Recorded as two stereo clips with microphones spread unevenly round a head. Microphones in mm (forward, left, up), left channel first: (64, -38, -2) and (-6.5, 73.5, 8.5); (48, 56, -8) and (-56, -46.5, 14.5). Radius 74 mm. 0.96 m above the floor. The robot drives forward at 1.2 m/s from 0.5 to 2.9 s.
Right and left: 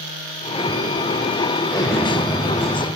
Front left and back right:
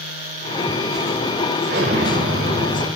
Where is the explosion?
120° right, 1.6 m; by 2.9 s 150° right, 2.5 m.